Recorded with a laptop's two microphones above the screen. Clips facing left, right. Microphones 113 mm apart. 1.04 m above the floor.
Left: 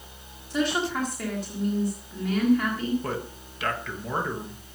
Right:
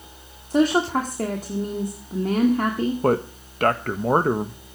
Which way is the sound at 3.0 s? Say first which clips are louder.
Right 11 dB; 50° right (ahead or behind).